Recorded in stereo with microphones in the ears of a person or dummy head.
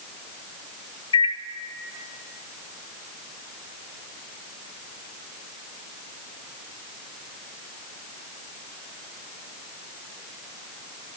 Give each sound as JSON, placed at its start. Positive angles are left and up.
{"t": 1.1, "sound": "a microwave", "side_deg": 25, "distance_m": 1.0}